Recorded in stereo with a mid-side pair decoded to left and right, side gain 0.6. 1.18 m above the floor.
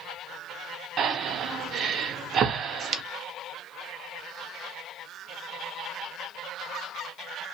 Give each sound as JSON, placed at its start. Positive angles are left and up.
{"t": 1.0, "sound": "breathing", "azimuth_deg": -50, "distance_m": 0.6}